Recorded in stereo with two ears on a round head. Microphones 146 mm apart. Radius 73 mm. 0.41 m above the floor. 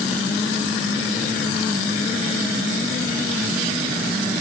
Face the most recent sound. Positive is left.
No sound to turn to.